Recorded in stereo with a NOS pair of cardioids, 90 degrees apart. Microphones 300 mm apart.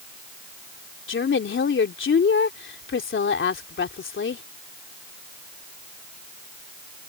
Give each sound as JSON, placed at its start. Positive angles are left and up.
{"t": 1.1, "sound": "a woman speaking", "azimuth_deg": 40}